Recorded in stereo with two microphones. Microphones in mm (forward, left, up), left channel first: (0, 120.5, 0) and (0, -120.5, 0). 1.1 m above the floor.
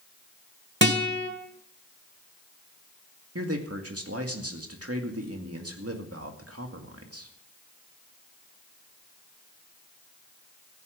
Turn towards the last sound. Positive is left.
turn(degrees=-75)  # may be behind; listen again after turning